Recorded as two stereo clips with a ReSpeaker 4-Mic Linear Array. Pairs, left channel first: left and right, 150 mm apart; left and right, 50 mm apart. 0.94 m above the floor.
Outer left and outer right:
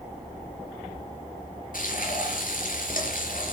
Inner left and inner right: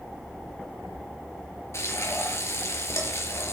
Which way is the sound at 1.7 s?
65° left (ahead or behind).